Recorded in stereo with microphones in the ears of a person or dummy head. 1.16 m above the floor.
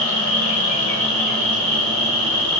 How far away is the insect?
About 2.5 m.